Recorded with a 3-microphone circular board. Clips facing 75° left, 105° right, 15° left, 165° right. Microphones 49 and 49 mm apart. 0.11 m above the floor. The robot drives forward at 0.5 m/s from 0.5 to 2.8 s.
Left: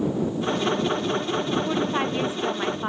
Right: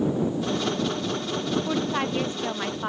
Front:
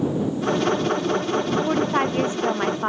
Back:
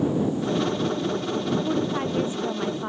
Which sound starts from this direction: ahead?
A woman speaking, at 1.7 s.